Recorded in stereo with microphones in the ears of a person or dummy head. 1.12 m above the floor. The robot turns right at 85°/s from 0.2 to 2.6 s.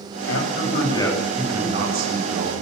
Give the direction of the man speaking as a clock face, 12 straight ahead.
9 o'clock.